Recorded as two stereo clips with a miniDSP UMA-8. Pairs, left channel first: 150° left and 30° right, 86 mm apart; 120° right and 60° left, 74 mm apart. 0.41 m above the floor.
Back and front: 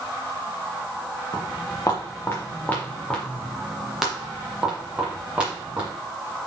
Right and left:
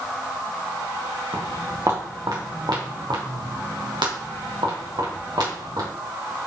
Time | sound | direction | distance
1.3 | footsteps | 110° left | 2 m